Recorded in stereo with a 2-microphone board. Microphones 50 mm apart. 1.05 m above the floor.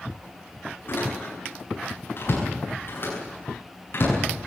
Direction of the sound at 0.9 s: 50° left (ahead or behind).